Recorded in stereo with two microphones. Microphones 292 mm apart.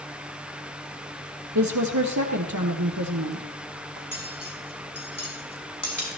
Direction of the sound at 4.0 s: 75° left (ahead or behind).